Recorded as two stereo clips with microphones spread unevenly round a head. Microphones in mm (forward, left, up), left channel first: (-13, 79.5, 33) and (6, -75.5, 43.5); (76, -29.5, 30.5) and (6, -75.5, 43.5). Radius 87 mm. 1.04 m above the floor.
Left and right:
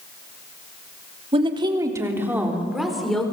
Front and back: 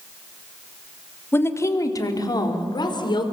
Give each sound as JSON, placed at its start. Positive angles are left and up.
{"t": 1.3, "sound": "a woman speaking", "azimuth_deg": -25, "distance_m": 3.0}